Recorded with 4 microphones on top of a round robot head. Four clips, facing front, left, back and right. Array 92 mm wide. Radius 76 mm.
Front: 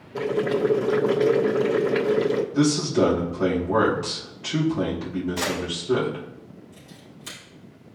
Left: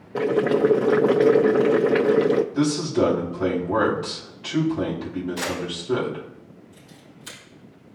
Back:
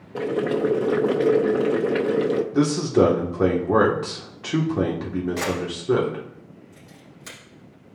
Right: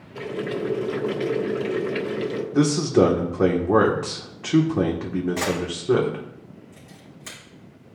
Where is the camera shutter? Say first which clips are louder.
Right 3 dB, back 1 dB; 130° right, 5 m.